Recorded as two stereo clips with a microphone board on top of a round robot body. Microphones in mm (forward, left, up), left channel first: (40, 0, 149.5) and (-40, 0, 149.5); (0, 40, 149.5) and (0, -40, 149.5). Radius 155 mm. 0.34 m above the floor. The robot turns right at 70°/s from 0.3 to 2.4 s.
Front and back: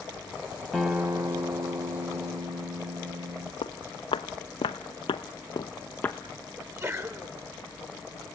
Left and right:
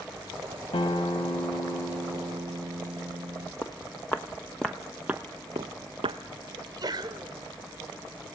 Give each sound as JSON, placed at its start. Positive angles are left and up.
{"t": 0.7, "sound": "a guitar", "azimuth_deg": 85, "distance_m": 1.9}
{"t": 3.6, "sound": "footsteps", "azimuth_deg": 25, "distance_m": 1.2}
{"t": 6.6, "sound": "a sneeze", "azimuth_deg": -125, "distance_m": 3.0}